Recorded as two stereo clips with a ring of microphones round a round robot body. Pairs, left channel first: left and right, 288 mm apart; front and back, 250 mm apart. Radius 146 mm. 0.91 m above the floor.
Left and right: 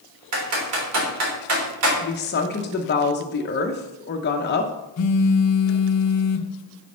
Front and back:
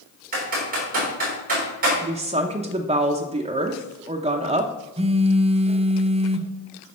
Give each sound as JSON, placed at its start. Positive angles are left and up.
{"t": 0.3, "sound": "typing on a keyboard", "azimuth_deg": -120, "distance_m": 3.5}
{"t": 2.0, "sound": "a woman speaking", "azimuth_deg": 125, "distance_m": 0.8}
{"t": 5.0, "sound": "a phone buzzing", "azimuth_deg": 115, "distance_m": 0.8}